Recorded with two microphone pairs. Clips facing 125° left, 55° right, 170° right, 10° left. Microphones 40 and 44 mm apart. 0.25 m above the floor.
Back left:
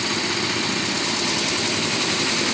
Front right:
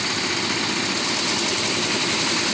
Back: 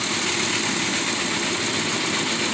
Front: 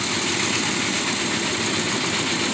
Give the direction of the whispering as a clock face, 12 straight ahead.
No whispering in this recording.